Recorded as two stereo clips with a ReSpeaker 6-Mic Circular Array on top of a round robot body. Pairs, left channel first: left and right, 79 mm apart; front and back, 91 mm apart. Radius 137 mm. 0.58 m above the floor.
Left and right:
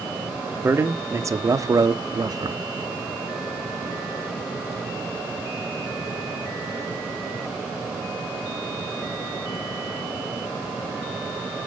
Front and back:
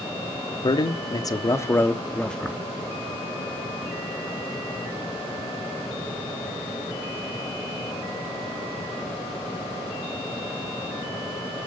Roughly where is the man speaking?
Ahead right.